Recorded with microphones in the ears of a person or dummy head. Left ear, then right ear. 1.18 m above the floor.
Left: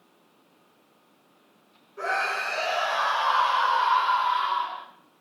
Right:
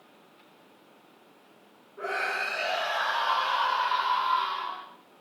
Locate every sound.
2.0 s a scream: 85° left, 5 m; by 4.8 s 45° left (ahead or behind), 7.5 m